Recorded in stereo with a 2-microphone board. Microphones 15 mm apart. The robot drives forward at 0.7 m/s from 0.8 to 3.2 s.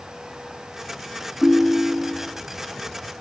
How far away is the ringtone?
About 0.5 m.